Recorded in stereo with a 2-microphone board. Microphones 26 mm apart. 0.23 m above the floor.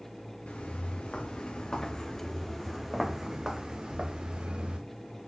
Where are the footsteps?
55° left (ahead or behind), 1.5 m; by 4.8 s 45° right (ahead or behind), 1.6 m.